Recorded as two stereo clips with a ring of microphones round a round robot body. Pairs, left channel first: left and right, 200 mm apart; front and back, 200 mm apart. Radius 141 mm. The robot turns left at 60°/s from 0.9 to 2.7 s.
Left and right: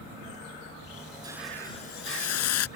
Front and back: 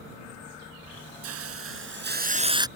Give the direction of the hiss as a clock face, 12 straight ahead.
6 o'clock.